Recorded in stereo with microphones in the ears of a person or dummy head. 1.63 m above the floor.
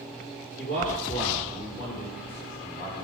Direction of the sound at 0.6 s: 45° left (ahead or behind).